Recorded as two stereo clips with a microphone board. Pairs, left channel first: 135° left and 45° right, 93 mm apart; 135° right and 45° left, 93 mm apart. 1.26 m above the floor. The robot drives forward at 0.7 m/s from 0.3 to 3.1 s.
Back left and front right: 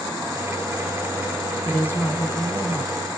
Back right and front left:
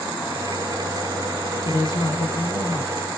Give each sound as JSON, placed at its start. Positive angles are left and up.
{"t": 1.6, "sound": "a woman speaking", "azimuth_deg": -155, "distance_m": 0.5}